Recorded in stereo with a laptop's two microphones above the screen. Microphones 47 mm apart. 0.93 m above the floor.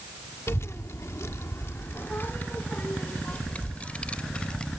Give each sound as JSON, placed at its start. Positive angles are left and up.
{"t": 0.5, "sound": "a child speaking", "side_deg": 70}